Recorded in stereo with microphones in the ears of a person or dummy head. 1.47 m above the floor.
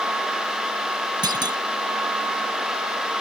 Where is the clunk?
25° right (ahead or behind).